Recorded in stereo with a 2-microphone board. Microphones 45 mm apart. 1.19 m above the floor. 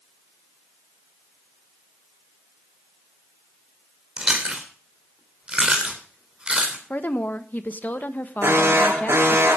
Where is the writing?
No writing in this recording.